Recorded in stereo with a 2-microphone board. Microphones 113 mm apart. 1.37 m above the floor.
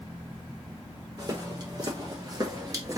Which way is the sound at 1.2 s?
35° right (ahead or behind).